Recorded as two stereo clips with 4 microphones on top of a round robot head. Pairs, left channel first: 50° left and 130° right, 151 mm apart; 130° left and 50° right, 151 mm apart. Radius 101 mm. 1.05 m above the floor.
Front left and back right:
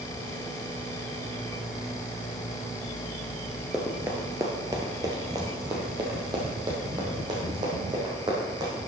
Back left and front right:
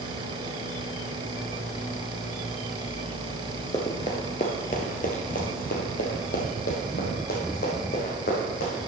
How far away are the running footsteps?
About 1.0 m.